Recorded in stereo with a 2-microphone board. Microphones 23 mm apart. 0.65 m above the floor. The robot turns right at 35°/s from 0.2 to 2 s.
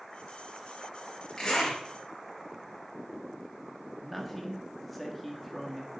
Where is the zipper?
35° left (ahead or behind), 3.5 m; by 1.8 s 50° left (ahead or behind), 3.5 m.